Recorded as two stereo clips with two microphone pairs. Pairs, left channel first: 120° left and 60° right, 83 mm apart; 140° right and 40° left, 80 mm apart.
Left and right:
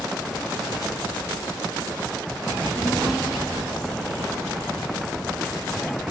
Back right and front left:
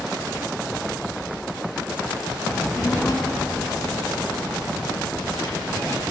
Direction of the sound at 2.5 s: 130° right.